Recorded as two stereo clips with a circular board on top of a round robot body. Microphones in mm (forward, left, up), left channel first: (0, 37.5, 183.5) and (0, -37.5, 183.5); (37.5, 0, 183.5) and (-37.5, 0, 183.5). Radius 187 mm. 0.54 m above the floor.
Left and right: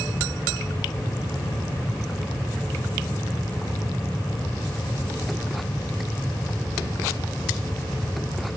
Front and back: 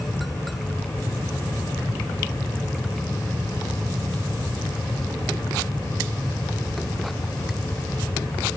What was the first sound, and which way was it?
Only background noise.